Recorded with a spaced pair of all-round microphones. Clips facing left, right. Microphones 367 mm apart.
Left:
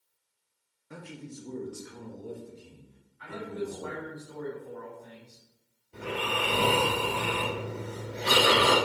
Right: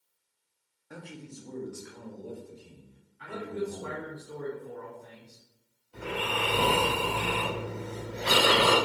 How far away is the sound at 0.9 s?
About 0.6 m.